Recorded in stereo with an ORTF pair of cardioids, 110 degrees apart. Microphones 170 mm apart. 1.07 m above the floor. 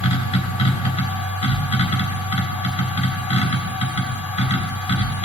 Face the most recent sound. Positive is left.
turn(degrees=40)